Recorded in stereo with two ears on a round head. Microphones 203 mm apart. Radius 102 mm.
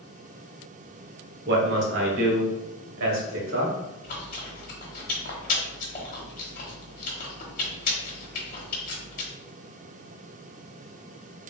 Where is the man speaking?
50° right (ahead or behind), 1.0 m; by 3.7 s 65° right (ahead or behind), 2.0 m.